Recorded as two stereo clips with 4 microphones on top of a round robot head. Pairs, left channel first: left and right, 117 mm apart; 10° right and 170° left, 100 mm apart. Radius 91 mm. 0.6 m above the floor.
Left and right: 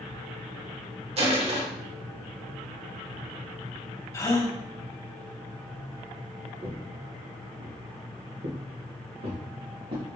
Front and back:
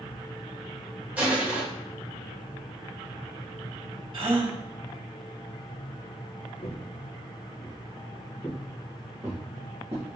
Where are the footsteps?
40° right, 3 m; by 10.1 s 135° right, 4 m.